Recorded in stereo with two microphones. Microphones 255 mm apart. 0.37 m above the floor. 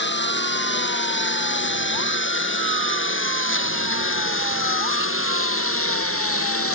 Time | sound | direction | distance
0.0 | a lawn mower | 45° left (ahead or behind) | ?